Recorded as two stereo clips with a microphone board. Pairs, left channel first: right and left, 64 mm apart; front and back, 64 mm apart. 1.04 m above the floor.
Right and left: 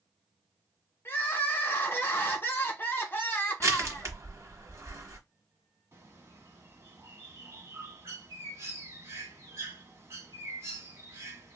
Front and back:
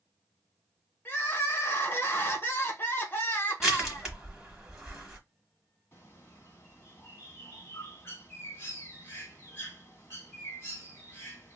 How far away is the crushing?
About 1.4 m.